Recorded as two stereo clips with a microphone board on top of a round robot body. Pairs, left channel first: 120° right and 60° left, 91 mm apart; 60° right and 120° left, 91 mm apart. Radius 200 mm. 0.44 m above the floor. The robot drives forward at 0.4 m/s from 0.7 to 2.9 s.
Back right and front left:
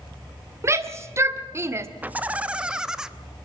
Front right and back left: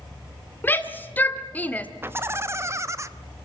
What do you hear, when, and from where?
0.6 s a shout: 5° left, 1.7 m; by 1.9 s 10° left, 1.3 m
2.0 s laughter: 105° left, 1.2 m; by 3.1 s 135° left, 1.2 m